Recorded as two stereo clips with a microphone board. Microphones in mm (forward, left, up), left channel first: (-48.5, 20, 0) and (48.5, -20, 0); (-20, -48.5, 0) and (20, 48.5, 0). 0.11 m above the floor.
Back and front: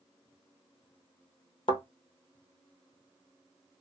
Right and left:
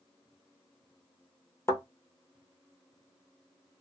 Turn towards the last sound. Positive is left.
turn(degrees=-175)